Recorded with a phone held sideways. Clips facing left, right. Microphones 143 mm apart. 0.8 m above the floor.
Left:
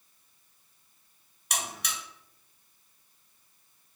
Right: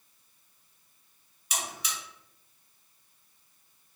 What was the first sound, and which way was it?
A buzzer, 80° left.